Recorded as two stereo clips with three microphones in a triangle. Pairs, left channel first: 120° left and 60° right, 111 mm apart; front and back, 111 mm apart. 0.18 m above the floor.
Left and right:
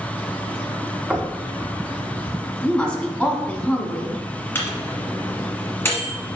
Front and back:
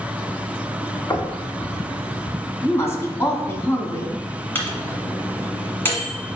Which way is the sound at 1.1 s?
10° left.